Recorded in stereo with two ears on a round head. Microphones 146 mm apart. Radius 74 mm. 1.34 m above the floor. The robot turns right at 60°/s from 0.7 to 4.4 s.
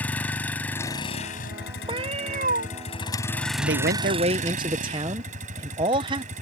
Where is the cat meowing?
145° right; by 2.7 s 95° right.